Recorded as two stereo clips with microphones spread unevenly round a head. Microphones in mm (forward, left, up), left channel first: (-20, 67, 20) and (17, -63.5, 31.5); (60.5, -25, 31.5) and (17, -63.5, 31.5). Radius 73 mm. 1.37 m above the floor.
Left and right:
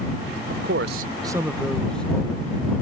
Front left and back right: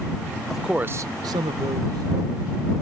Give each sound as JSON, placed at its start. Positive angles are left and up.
{"t": 0.5, "sound": "a man speaking", "azimuth_deg": -45}